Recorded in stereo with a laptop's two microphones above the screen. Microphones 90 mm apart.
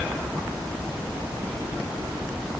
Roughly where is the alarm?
No alarm in this recording.